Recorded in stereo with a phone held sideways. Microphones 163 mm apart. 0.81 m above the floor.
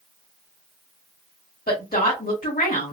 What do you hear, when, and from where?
1.7 s a woman speaking: 65° left (ahead or behind), 1.9 m